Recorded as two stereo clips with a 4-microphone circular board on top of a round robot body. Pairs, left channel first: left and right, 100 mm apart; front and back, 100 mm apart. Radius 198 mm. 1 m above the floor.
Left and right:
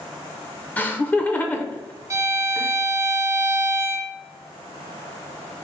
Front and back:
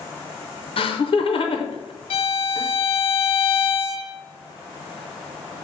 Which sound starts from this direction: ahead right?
A violin, at 2.1 s.